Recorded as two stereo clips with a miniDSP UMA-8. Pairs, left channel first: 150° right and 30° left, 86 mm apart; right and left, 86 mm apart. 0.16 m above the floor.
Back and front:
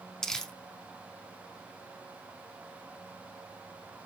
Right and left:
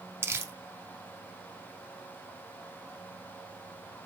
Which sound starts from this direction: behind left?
Crumpling, at 0.2 s.